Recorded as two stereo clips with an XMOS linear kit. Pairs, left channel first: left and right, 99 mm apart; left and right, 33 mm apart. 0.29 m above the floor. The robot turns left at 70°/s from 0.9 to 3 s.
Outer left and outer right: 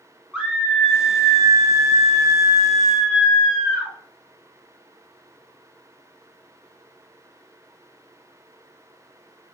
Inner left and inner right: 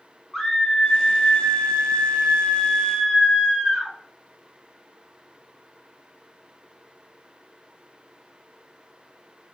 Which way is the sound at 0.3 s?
5° right (ahead or behind).